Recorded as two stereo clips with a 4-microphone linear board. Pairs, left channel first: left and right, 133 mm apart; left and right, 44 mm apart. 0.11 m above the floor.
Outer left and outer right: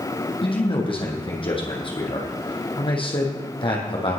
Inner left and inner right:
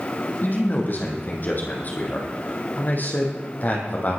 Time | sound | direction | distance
0.4 | a man speaking | 40° left (ahead or behind) | 3.5 m